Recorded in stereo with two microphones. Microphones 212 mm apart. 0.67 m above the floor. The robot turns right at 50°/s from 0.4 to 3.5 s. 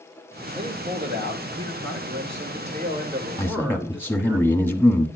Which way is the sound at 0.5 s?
155° right.